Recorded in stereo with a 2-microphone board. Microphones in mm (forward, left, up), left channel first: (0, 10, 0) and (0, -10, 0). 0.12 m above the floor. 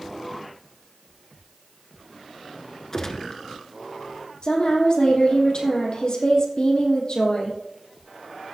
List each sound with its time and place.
2.9 s a gunshot: 30° left (ahead or behind), 1.0 m
4.4 s a woman speaking: 55° left (ahead or behind), 3.5 m